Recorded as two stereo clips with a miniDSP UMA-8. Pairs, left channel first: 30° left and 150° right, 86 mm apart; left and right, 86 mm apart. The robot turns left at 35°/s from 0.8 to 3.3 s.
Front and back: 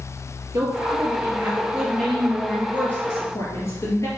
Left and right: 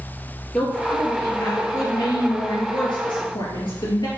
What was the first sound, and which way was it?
A woman speaking, 170° left.